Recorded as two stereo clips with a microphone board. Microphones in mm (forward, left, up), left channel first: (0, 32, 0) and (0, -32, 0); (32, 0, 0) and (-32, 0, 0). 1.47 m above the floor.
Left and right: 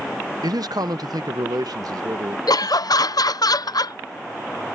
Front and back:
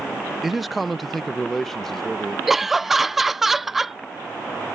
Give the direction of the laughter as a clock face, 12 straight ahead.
9 o'clock.